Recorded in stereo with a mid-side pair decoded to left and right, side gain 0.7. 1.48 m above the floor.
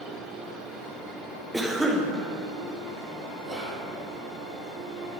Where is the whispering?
20° right, 3 m.